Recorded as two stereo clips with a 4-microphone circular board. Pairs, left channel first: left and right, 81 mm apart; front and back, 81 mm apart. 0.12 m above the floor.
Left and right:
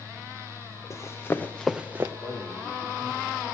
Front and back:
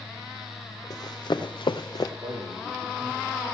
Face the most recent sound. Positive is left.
turn(degrees=155)